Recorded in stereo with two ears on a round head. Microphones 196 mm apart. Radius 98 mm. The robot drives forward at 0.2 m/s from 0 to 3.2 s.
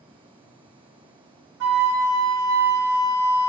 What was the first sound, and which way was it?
A flute, 80° right.